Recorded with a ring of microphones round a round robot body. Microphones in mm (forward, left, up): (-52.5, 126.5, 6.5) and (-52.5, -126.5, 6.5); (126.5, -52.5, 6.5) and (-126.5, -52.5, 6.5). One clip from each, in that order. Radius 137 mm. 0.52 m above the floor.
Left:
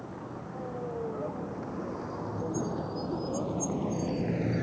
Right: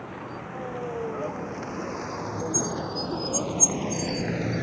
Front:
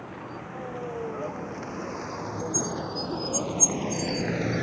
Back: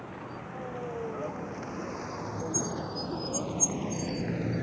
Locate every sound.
0.0 s a vehicle: 80° right; by 4.6 s 20° right